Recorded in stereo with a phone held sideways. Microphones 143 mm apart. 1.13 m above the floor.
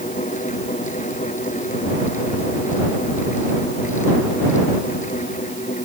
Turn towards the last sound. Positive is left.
turn(degrees=65)  # may be behind; listen again after turning